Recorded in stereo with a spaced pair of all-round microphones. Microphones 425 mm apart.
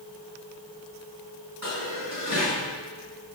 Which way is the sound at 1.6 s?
40° right (ahead or behind).